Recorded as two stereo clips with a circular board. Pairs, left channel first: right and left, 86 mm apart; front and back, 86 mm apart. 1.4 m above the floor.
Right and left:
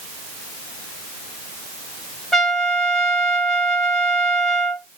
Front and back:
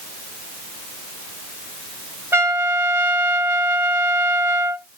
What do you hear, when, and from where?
2.3 s a trumpet: 170° right, 1.2 m